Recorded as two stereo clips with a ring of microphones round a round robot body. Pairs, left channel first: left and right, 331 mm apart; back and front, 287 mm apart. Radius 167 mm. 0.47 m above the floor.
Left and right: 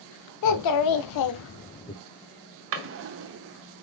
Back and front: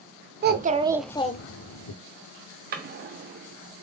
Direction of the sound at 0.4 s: 55° left.